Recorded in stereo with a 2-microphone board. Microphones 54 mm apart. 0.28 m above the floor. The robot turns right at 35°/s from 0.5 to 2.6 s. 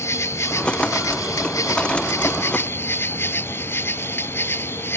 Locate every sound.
0.0 s an insect: 60° left; by 5.0 s 135° left